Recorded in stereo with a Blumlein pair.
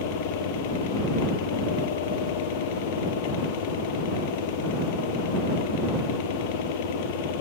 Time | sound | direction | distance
0.0 | a fan | 50° left | ?